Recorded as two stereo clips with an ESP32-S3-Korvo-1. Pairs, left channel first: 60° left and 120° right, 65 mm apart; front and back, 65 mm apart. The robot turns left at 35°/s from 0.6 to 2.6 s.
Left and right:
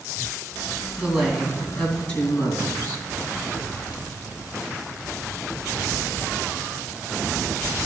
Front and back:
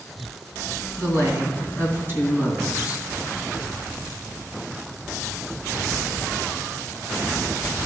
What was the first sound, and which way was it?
A woman speaking, 170° left.